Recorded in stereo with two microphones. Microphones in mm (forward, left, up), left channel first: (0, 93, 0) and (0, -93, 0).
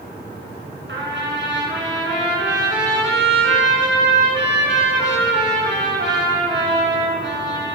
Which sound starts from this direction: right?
A trumpet, at 0.9 s.